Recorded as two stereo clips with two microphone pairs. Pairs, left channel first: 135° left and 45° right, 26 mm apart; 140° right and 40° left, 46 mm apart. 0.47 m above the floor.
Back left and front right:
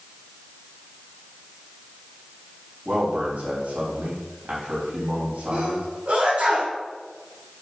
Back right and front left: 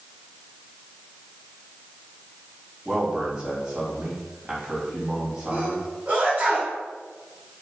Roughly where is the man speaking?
Ahead right.